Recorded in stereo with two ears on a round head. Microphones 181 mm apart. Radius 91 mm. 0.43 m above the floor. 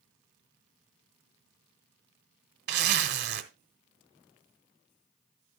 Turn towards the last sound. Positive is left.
turn(degrees=-55)  # may be behind; listen again after turning